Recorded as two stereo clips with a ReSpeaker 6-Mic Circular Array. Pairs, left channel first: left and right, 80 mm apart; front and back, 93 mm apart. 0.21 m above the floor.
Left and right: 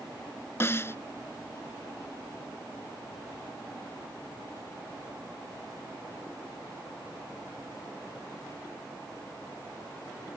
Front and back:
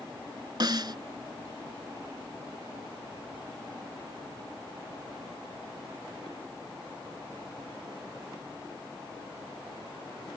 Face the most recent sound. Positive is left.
turn(degrees=145)